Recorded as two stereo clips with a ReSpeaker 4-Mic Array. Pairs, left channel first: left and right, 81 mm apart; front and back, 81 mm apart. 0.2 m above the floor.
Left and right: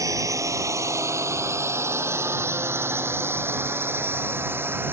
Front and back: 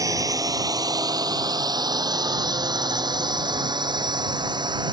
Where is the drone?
135° right; by 4.9 s 155° right.